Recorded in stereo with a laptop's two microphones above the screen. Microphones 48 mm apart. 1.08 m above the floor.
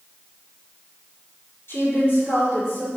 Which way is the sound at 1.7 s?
65° left (ahead or behind).